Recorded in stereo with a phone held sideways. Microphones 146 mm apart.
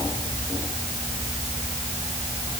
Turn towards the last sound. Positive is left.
No sound to turn to.